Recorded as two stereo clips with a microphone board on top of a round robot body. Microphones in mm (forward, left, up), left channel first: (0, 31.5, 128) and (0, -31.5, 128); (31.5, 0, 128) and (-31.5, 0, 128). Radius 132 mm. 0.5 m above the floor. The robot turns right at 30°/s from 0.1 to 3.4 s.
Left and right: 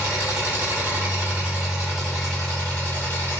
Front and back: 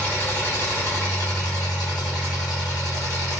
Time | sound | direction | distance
0.0 | an engine running | 60° right | 2.5 m